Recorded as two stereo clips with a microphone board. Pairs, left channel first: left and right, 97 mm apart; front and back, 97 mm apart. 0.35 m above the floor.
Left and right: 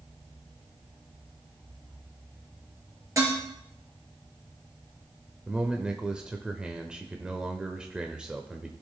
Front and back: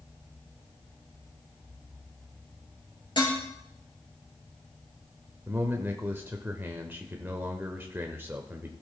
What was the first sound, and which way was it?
Dishes clattering, 30° right.